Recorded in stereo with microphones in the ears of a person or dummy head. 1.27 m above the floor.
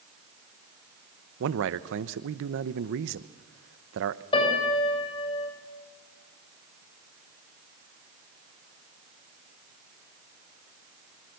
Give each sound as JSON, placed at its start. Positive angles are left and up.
{"t": 1.4, "sound": "a man speaking", "side_deg": -65, "distance_m": 0.9}
{"t": 4.3, "sound": "a piano", "side_deg": 30, "distance_m": 6.5}